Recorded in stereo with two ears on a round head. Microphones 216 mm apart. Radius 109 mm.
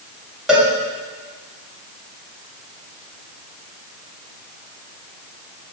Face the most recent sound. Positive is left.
turn(degrees=-5)  # may be behind; listen again after turning